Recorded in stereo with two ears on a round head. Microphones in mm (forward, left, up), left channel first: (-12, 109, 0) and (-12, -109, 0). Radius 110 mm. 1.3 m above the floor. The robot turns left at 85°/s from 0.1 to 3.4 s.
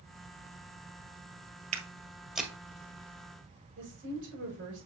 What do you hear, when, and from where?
1.7 s footsteps: 30° right (ahead or behind), 1.5 m; by 2.5 s 5° left (ahead or behind), 1.5 m
3.8 s a woman speaking: 55° right (ahead or behind), 5.5 m